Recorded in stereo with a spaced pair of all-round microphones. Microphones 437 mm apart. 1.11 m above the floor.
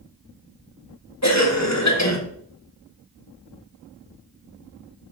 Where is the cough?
40° left (ahead or behind), 1.6 m.